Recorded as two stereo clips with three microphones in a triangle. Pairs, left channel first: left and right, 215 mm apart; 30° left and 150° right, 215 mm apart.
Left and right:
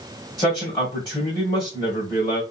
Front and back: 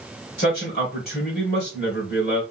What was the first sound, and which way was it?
A man speaking, 30° left.